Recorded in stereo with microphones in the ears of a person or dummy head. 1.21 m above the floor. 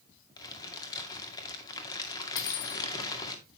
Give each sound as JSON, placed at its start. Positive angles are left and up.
{"t": 0.4, "sound": "crumpling", "side_deg": 20, "distance_m": 2.0}
{"t": 2.4, "sound": "cutlery clinking", "side_deg": 60, "distance_m": 1.2}